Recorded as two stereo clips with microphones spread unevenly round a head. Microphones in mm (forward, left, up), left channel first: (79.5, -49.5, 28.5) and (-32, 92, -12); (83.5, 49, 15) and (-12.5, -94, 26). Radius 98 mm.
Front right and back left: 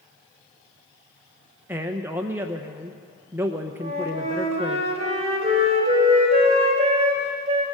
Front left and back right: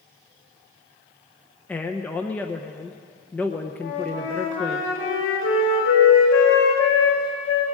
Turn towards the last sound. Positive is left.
turn(degrees=70)